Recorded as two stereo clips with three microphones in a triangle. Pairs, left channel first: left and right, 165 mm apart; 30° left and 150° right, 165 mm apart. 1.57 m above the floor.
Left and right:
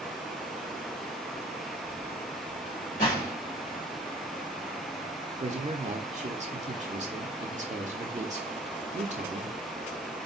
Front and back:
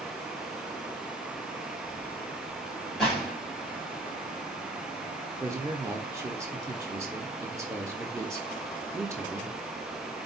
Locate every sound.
3.0 s a gunshot: 120° left, 3 m
5.4 s a man speaking: 85° right, 0.6 m